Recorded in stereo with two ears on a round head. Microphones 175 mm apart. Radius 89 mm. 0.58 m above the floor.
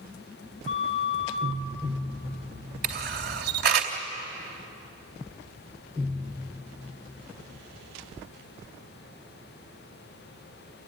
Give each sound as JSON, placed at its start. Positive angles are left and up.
{"t": 0.7, "sound": "a flute", "side_deg": 35, "distance_m": 2.0}
{"t": 2.8, "sound": "a camera shutter", "side_deg": -55, "distance_m": 2.5}